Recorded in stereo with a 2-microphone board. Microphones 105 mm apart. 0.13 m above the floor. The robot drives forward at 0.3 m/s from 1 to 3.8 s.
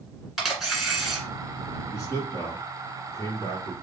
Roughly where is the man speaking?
Left.